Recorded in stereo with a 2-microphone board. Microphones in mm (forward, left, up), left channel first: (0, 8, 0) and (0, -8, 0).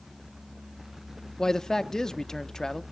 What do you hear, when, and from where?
1.4 s a man speaking: 35° left (ahead or behind), 0.6 m